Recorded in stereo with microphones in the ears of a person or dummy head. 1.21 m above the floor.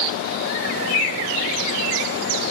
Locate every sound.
Only background noise.